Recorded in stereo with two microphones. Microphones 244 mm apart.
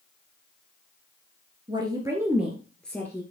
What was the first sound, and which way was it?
A woman speaking, 20° right (ahead or behind).